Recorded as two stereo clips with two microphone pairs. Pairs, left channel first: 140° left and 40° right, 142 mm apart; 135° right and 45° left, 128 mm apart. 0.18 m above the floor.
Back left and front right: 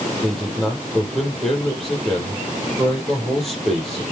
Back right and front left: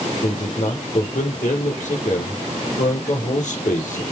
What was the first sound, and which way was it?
A man speaking, 130° right.